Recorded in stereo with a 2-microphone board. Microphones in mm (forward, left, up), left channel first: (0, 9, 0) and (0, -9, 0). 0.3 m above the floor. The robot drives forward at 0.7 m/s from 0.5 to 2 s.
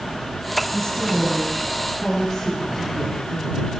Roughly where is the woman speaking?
Left.